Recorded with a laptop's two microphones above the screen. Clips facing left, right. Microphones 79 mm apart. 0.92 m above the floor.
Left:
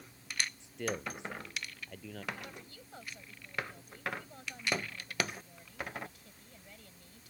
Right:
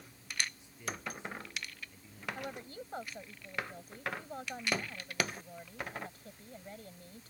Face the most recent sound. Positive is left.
turn(degrees=-40)  # may be behind; listen again after turning